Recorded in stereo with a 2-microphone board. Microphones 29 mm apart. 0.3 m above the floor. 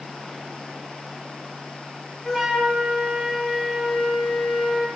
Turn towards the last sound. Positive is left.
turn(degrees=15)  # may be behind; listen again after turning